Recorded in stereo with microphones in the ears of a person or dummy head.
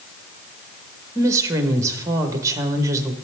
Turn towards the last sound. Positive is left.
turn(degrees=-20)  # may be behind; listen again after turning